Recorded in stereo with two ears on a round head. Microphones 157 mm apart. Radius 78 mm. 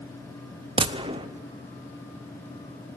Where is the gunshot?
30° right (ahead or behind), 0.6 m.